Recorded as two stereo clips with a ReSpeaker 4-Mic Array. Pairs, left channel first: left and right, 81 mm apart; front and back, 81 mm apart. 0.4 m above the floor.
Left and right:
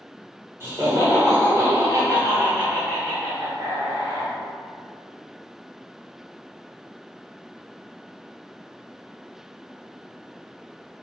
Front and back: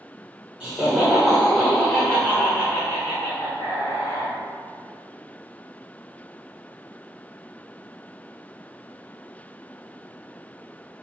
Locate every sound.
0.6 s laughter: 115° right, 1.5 m; by 4.3 s 35° right, 2 m